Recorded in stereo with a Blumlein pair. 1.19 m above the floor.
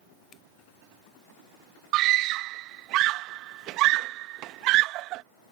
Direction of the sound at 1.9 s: 40° right.